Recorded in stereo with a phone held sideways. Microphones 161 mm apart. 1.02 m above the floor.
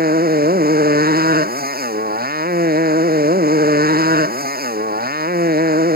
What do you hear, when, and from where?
0.0 s a motorcycle: 85° right